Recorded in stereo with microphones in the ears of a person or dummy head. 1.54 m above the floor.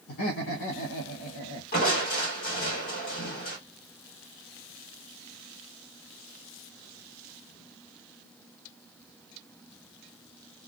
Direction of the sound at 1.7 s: 55° left (ahead or behind).